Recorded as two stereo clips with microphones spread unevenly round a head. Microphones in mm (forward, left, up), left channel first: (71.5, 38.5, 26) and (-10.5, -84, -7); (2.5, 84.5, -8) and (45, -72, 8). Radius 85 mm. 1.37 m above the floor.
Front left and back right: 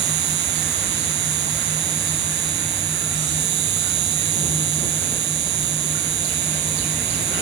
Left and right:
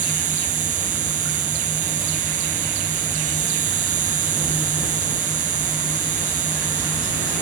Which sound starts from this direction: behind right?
An insect, at 0.0 s.